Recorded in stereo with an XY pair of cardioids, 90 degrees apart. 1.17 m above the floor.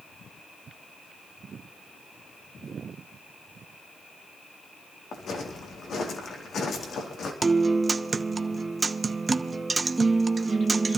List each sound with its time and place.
5.1 s footsteps: 65° left, 4 m
7.4 s a guitar: 30° right, 0.9 m